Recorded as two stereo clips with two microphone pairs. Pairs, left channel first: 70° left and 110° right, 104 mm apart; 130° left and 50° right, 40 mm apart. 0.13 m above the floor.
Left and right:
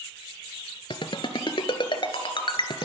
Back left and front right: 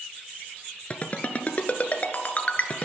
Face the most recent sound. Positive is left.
turn(degrees=85)